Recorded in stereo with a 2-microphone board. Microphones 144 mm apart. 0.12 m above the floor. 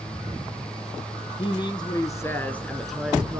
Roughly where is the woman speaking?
Left.